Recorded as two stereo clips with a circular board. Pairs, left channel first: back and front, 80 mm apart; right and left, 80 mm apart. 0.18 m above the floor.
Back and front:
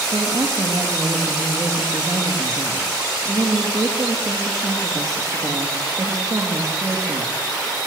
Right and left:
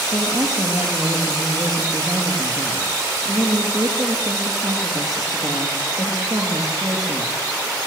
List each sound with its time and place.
0.1 s a woman speaking: 50° left, 5 m